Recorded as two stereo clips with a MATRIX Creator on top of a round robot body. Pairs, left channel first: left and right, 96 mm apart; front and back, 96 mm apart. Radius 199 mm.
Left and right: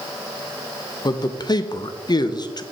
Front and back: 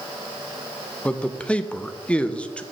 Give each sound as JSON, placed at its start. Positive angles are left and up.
{"t": 1.1, "sound": "a man speaking", "azimuth_deg": 75, "distance_m": 0.7}